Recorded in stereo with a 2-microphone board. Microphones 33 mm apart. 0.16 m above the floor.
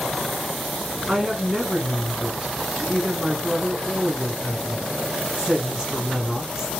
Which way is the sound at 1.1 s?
20° right (ahead or behind).